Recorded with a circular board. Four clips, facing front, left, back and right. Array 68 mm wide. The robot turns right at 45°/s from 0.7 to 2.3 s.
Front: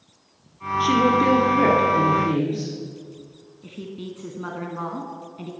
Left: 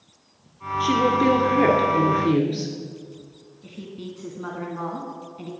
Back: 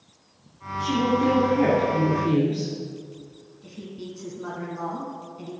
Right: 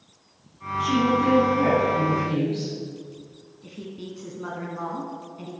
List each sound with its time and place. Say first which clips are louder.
0.8 s a woman speaking: left 2 dB, front 4 dB; 25° left, 2 m; by 2.7 s 95° left, 2 m
3.6 s a woman speaking: left 1 dB, front 3 dB; 10° left, 1.2 m